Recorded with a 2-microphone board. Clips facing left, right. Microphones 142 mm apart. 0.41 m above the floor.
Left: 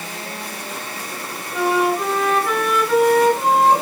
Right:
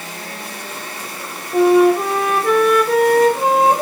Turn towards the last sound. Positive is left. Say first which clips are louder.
# right 8 dB
turn(degrees=-55)  # may be behind; listen again after turning